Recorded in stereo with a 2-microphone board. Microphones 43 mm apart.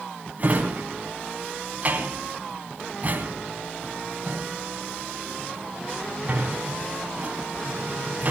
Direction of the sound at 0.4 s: 40° right (ahead or behind).